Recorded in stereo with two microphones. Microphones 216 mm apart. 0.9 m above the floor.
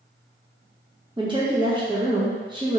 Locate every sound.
1.2 s a woman speaking: 20° right (ahead or behind), 0.8 m